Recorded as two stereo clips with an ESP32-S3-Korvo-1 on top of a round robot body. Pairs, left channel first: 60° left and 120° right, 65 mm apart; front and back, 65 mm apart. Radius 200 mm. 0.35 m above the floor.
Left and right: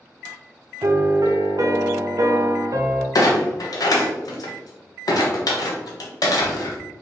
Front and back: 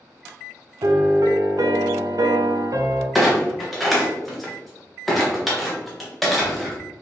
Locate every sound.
0.8 s a piano: 155° right, 0.5 m
3.1 s a clunk: 90° left, 0.6 m